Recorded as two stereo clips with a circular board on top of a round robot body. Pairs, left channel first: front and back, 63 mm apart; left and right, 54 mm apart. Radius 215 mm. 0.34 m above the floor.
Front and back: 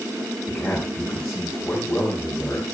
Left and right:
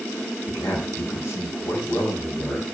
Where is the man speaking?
85° left, 5 m.